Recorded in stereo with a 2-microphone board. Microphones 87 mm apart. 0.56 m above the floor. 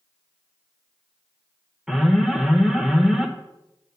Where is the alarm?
5° right (ahead or behind), 1.0 m.